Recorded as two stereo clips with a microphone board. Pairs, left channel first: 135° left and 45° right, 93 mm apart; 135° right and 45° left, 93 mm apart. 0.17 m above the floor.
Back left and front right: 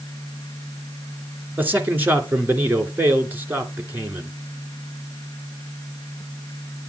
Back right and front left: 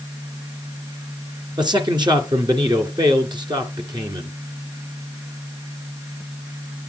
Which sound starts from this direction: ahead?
A man speaking, at 1.6 s.